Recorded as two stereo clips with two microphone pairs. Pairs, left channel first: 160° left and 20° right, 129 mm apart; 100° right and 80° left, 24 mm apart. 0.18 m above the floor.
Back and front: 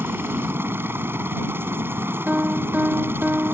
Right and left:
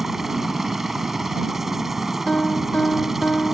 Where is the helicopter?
30° left.